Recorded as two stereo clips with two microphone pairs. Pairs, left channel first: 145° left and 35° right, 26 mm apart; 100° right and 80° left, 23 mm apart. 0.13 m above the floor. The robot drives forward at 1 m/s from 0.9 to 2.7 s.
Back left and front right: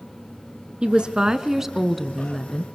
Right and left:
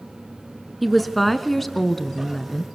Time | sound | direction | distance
0.8 | a woman speaking | 10° right | 1.5 m